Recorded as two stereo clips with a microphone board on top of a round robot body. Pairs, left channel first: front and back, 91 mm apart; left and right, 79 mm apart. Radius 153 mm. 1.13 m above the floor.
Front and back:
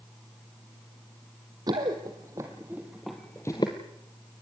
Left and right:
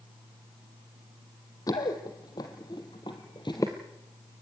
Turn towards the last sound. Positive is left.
turn(degrees=25)